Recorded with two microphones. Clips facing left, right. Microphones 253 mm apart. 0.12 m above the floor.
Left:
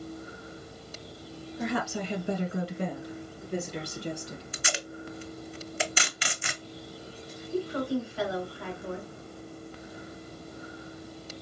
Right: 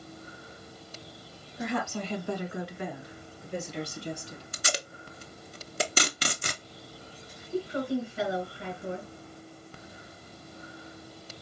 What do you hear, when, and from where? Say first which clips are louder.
1.6 s a woman speaking: left 1 dB; 5° right (ahead or behind), 1.2 m; by 4.4 s 65° left (ahead or behind), 2.5 m
4.5 s tape being pulled: right 2 dB; 45° right (ahead or behind), 0.5 m
7.5 s a woman speaking: even; 20° right (ahead or behind), 1.9 m